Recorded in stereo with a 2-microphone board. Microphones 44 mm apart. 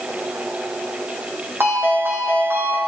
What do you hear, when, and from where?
1.6 s a ringtone: 70° right (ahead or behind), 3 m